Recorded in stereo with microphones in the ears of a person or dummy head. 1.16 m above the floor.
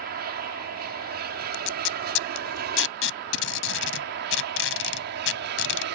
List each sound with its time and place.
0.0 s an aircraft: 50° right (ahead or behind); by 6.0 s 55° right (ahead or behind)
1.5 s tape being pulled: 70° left (ahead or behind)